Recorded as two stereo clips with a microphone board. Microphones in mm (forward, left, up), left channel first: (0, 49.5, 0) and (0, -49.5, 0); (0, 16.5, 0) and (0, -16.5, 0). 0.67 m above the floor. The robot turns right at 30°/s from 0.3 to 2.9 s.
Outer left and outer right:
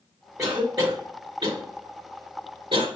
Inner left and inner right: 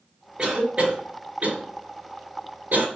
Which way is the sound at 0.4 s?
25° right (ahead or behind).